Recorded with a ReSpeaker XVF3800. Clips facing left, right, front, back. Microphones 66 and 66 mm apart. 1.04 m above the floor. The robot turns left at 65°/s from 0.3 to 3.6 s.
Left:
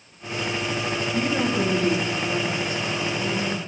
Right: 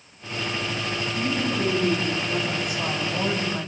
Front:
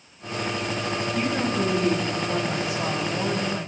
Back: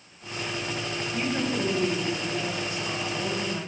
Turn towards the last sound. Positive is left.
turn(degrees=-70)